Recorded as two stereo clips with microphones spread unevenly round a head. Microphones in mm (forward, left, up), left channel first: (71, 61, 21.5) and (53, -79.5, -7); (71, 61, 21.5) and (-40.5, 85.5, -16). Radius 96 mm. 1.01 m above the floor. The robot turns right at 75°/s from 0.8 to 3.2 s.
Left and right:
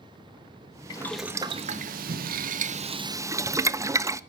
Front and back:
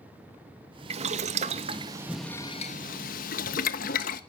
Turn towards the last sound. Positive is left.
turn(degrees=-30)